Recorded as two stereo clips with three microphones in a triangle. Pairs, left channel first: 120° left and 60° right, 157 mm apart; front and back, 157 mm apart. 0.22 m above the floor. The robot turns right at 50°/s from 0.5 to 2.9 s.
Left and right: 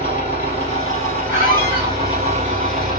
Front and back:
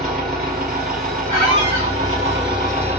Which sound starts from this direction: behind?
An engine running, at 0.0 s.